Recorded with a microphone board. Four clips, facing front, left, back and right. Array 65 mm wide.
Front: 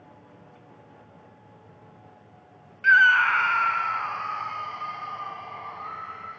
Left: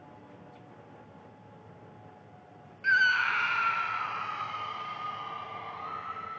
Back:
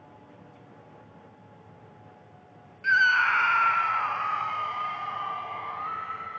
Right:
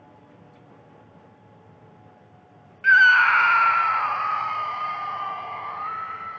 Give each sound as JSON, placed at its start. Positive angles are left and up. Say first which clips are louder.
{"t": 2.8, "sound": "a scream", "louder": "right 10 dB, front 4 dB", "azimuth_deg": -50, "distance_m": 0.5}